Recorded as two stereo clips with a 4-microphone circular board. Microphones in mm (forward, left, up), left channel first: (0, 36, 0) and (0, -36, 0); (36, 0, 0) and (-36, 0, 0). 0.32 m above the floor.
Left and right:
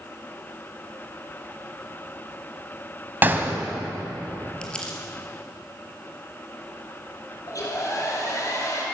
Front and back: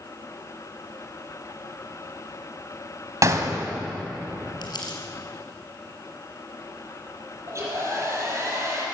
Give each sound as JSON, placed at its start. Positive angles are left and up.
{"t": 3.2, "sound": "a gunshot", "azimuth_deg": -145, "distance_m": 2.0}
{"t": 4.6, "sound": "crumpling", "azimuth_deg": 15, "distance_m": 3.5}
{"t": 7.5, "sound": "a hair dryer", "azimuth_deg": 130, "distance_m": 6.0}